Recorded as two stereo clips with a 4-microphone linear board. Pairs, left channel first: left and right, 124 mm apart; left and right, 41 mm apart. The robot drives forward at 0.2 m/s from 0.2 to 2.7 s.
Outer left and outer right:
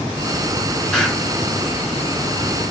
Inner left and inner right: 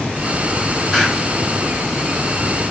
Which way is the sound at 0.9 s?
5° left (ahead or behind).